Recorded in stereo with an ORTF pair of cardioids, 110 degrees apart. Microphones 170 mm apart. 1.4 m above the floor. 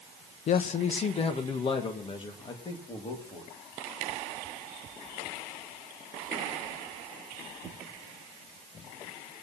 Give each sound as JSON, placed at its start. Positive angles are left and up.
{"t": 0.5, "sound": "a man speaking", "azimuth_deg": 50, "distance_m": 0.8}